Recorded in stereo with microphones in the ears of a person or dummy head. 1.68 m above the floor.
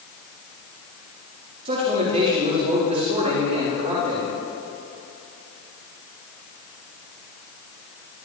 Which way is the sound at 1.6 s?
35° right (ahead or behind).